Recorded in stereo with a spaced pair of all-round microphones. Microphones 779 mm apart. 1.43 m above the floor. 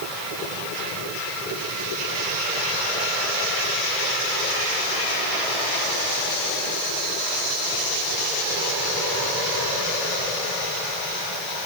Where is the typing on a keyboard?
No typing on a keyboard in this recording.